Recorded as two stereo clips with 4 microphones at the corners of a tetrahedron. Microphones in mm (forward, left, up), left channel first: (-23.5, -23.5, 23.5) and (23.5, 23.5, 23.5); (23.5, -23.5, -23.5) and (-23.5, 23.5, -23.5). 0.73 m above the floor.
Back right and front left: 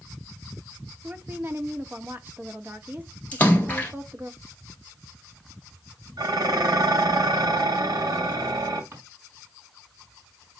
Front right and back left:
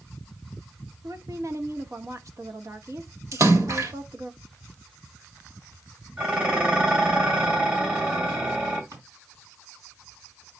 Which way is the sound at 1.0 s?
105° left.